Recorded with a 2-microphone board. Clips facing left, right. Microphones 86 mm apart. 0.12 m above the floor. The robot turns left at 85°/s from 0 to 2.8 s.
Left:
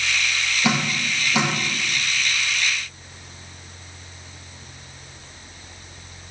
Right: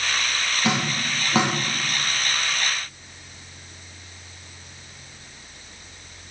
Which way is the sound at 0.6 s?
15° left (ahead or behind).